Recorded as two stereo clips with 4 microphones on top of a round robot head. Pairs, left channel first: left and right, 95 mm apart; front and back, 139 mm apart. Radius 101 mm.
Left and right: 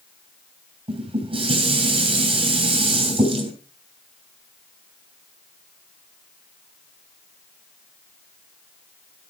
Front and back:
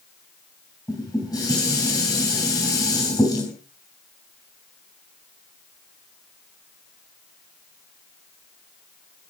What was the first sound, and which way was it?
Dishes clattering, 65° right.